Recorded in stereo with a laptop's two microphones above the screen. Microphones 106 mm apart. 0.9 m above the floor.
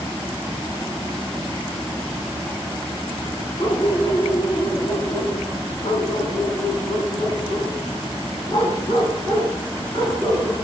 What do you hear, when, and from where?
3.6 s a dog barking: 70° left (ahead or behind), 4 m; by 10.5 s 40° left (ahead or behind), 4.5 m